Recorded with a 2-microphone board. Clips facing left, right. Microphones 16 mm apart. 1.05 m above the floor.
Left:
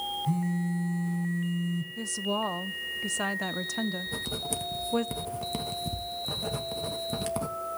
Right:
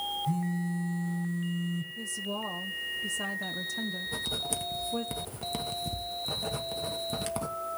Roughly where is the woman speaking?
Left.